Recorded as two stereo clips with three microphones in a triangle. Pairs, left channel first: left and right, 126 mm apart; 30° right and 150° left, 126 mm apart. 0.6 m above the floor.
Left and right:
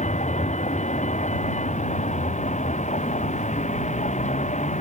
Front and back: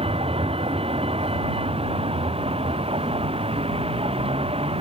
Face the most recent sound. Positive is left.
turn(degrees=110)